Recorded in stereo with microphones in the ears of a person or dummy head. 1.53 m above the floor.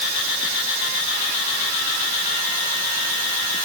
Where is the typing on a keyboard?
I don't hear typing on a keyboard.